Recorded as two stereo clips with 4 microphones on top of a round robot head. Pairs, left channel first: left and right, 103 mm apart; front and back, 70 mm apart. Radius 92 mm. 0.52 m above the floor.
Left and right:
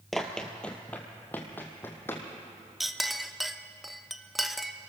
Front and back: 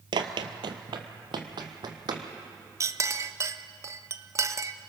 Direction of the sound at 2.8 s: Straight behind.